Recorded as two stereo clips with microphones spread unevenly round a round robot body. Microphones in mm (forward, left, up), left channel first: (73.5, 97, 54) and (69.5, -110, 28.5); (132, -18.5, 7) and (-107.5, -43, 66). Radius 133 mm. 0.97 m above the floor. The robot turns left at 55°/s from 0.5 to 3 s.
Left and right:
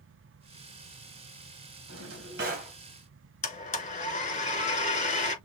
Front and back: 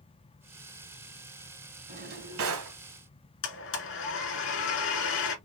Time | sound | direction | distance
1.9 | a drawer | 120° right | 1.9 m
3.4 | a blender | 30° left | 2 m